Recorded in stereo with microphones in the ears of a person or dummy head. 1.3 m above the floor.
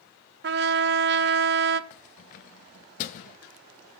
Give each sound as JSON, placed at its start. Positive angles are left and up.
{"t": 0.4, "sound": "a trumpet", "side_deg": -55, "distance_m": 0.6}
{"t": 1.9, "sound": "keys jangling", "side_deg": 45, "distance_m": 0.7}